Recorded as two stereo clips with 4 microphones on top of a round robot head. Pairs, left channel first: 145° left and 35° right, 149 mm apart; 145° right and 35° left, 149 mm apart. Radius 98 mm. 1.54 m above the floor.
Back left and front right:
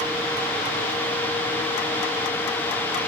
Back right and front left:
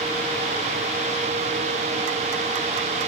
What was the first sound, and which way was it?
Only background noise.